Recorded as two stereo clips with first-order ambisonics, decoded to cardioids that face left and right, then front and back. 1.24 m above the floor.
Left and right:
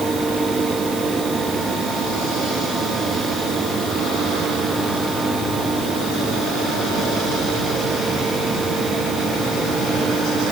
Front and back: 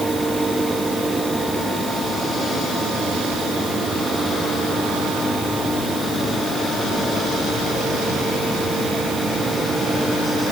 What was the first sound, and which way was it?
Only background noise.